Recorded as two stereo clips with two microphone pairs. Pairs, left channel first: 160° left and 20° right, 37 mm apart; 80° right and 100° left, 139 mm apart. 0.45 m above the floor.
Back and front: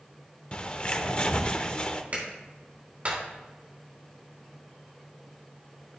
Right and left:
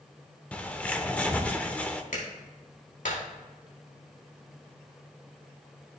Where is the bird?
155° right, 0.7 m.